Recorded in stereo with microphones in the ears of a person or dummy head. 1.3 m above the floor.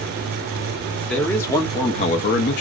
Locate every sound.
1.1 s a man speaking: 5° left (ahead or behind), 1.0 m; by 2.6 s 50° left (ahead or behind), 0.6 m